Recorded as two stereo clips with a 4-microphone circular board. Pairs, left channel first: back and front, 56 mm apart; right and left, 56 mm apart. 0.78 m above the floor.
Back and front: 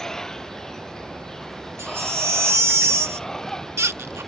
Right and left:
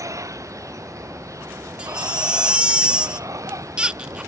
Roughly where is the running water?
Left.